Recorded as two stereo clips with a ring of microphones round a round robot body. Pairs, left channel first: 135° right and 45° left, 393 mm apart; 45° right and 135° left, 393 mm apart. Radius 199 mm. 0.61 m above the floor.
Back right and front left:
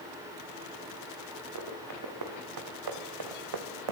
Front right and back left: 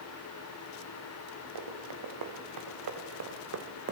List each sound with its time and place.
1.6 s running footsteps: 95° left, 5 m; by 3.9 s 70° left, 2.0 m